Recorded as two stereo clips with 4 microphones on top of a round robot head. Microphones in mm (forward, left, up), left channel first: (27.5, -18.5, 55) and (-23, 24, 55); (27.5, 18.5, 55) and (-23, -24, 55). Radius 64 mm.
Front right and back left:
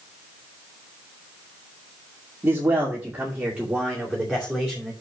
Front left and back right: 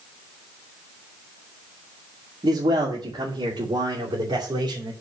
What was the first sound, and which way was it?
A man speaking, 155° right.